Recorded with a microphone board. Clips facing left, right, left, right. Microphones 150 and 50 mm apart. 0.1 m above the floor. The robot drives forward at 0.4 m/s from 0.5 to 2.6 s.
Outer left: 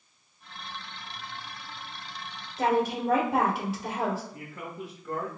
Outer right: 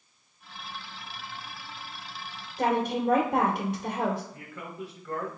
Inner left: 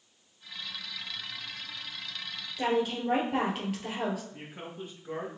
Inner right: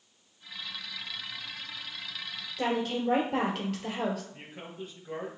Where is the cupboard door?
No cupboard door in this recording.